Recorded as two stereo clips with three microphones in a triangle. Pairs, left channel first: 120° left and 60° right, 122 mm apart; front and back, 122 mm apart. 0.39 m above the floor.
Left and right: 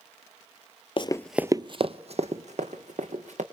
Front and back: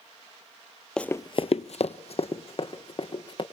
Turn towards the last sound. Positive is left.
turn(degrees=-45)